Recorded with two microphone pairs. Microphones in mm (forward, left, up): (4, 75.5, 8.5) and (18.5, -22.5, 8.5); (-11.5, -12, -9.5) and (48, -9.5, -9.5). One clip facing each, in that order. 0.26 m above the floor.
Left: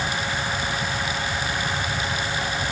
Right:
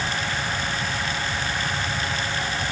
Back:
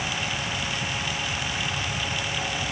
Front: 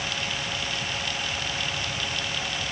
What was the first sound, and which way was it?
Only background noise.